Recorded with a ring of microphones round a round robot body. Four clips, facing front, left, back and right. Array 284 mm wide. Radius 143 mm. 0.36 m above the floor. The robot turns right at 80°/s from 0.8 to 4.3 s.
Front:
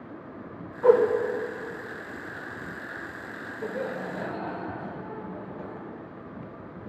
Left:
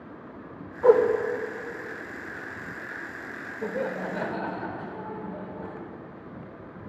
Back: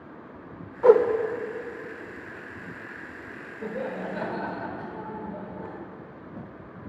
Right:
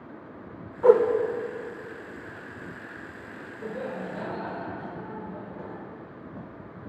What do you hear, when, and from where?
0.8 s a whoosh: 170° right, 0.7 m; by 1.0 s 155° right, 0.7 m
3.6 s laughter: 70° left, 1.0 m; by 5.8 s 125° left, 1.0 m